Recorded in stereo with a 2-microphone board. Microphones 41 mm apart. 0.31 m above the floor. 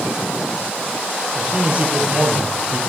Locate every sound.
1.4 s a man speaking: 35° right (ahead or behind), 9 m; by 2.8 s 30° right (ahead or behind), 8.5 m